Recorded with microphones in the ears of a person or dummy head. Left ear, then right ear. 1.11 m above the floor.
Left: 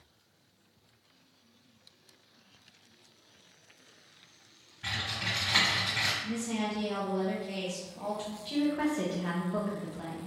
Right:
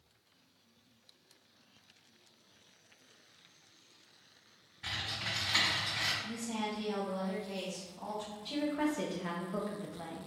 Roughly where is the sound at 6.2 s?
Left.